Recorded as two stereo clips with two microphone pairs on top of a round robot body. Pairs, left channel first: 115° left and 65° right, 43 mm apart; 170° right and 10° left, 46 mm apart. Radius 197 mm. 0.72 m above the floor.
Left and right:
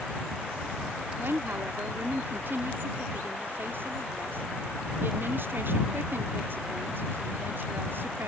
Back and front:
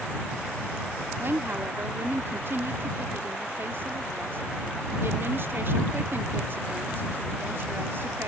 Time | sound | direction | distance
1.2 | a woman speaking | 30° right | ?